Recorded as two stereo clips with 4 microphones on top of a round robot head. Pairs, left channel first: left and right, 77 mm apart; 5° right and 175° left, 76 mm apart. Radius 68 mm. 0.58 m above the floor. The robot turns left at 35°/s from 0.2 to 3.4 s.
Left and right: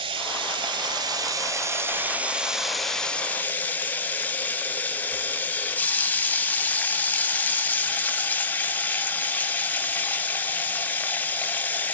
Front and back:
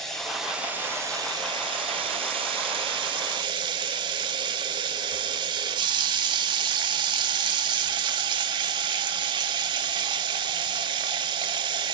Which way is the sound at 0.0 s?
90° right.